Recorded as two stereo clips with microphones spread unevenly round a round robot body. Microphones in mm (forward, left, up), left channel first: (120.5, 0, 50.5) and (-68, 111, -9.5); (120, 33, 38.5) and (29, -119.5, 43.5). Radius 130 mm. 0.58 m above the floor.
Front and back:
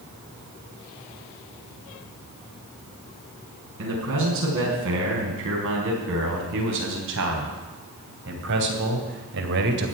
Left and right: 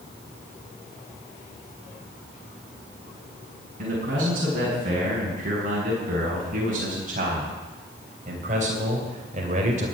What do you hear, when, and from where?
3.8 s a man speaking: straight behind, 5 m; by 9.9 s 175° right, 2 m